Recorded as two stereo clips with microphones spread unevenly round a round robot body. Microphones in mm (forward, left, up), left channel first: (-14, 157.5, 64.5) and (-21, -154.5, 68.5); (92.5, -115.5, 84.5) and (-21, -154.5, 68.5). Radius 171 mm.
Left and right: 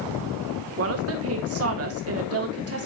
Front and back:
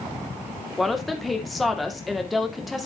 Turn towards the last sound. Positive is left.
turn(degrees=-80)